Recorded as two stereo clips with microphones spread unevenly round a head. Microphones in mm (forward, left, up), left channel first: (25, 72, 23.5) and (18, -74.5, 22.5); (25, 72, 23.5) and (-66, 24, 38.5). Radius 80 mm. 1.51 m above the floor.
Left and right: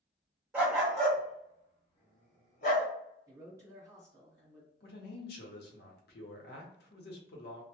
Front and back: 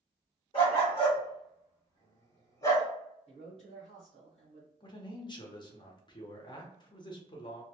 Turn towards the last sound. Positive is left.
turn(degrees=75)